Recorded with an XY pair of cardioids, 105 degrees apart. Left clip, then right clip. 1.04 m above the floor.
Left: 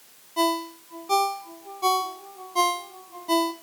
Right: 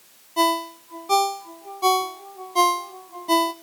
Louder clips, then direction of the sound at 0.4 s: Right 3 dB; 25° right.